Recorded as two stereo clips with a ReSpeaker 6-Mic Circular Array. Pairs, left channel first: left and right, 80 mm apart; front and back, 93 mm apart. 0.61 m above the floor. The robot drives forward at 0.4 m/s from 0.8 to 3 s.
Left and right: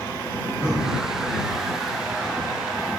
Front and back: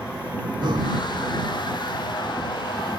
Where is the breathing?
170° right, 2.5 m.